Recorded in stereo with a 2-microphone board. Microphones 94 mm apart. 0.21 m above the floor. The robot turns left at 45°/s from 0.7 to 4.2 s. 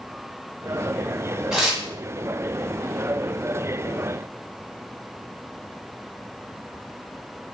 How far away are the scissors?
No scissors in this recording.